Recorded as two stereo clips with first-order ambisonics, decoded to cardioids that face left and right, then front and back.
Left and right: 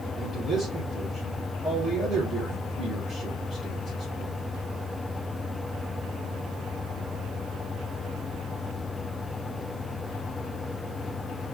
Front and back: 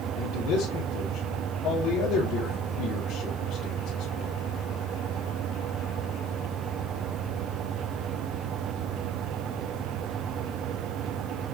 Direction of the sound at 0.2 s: 15° right.